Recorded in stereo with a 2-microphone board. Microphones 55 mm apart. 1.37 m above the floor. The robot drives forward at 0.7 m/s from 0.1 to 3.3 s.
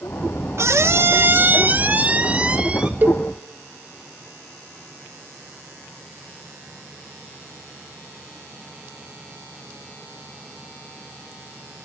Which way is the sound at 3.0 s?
35° right (ahead or behind).